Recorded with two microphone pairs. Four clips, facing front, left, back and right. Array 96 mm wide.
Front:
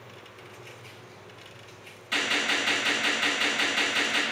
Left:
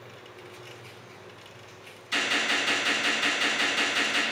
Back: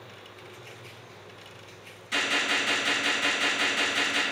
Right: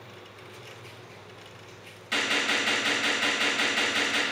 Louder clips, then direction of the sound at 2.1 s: Even, even; 75° right.